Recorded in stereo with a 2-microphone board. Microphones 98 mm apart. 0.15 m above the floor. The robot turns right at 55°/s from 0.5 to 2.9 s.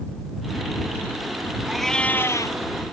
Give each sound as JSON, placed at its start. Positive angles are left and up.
{"t": 1.7, "sound": "a cat meowing", "azimuth_deg": -5}